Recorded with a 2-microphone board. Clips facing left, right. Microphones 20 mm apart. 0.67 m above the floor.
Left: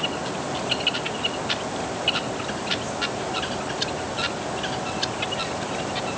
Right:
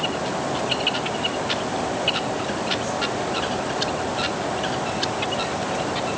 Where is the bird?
No bird in this recording.